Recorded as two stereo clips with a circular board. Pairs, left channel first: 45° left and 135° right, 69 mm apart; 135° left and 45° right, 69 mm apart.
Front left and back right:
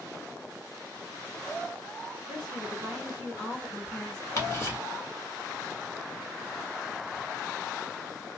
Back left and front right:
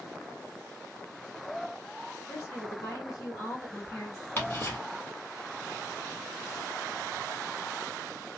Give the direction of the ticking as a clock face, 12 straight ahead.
9 o'clock.